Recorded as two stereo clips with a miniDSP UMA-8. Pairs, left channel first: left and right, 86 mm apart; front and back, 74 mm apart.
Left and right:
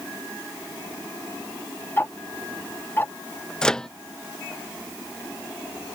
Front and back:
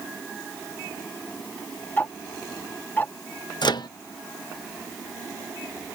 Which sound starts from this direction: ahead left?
Ticking, at 2.0 s.